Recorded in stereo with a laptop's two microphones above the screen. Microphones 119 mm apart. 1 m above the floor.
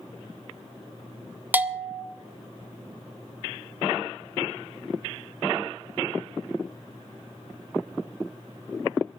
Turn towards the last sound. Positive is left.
turn(degrees=-15)  # may be behind; listen again after turning